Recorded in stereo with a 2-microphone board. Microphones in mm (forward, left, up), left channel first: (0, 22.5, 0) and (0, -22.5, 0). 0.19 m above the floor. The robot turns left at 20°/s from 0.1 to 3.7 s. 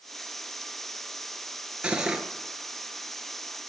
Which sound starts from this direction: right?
Cutlery clinking, at 1.8 s.